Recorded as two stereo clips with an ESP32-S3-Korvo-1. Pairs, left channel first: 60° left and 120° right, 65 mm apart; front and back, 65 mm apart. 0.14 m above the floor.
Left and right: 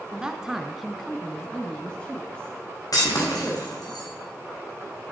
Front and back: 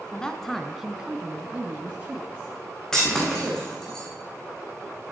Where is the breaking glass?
80° left, 4.5 m.